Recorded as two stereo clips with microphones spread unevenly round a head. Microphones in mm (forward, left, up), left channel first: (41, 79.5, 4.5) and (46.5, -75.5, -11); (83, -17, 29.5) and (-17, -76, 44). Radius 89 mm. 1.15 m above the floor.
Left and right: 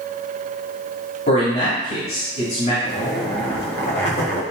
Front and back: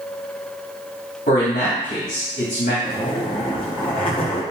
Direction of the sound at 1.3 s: 60° left.